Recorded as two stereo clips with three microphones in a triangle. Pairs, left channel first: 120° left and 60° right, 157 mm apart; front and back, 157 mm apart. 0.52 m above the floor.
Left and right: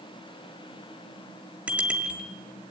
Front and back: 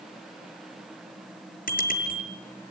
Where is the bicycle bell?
20° left, 5.5 m.